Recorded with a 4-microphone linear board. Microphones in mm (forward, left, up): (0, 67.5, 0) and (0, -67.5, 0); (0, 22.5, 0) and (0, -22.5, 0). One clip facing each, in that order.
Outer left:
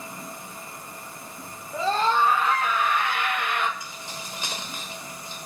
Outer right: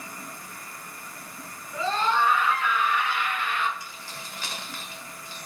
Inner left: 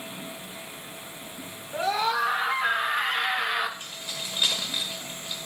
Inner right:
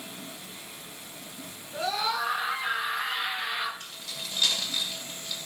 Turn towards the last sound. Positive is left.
turn(degrees=20)  # may be behind; listen again after turning